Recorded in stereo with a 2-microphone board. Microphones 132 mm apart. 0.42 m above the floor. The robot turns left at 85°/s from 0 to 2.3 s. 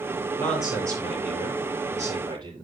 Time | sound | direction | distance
0.3 | a man speaking | 15° left | 8.5 m